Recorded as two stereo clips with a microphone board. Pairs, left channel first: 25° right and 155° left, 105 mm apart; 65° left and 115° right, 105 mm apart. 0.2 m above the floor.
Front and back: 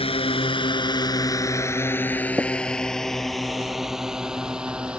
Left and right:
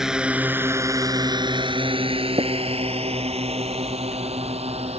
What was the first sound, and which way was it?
A drone, 30° right.